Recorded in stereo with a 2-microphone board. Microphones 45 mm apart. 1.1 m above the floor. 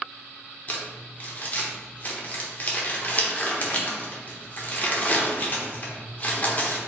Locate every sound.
0.7 s crumpling: 30° left (ahead or behind), 0.8 m